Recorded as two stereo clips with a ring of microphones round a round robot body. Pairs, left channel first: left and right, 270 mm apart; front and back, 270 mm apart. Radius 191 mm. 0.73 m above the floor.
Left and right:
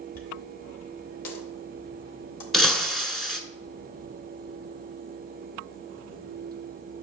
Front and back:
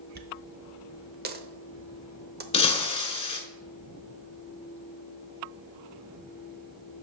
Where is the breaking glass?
5° left, 0.7 m.